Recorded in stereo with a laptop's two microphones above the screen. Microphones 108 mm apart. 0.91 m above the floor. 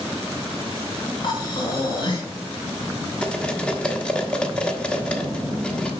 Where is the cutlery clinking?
10° left (ahead or behind), 1.3 m.